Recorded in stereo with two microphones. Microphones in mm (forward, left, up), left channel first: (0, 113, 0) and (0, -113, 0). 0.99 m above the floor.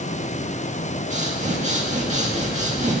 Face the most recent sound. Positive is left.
turn(degrees=-30)  # may be behind; listen again after turning